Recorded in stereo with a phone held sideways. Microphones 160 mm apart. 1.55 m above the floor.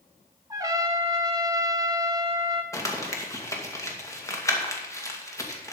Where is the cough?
I don't hear a cough.